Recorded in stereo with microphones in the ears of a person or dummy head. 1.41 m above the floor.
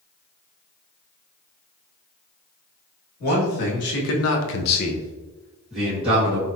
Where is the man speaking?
50° left (ahead or behind), 1.9 m; by 6.5 s 15° right (ahead or behind), 2 m.